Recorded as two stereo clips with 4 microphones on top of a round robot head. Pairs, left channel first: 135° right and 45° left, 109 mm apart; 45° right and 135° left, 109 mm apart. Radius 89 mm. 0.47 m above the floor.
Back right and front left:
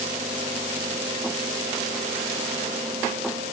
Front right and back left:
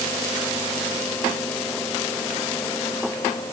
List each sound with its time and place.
Only background noise.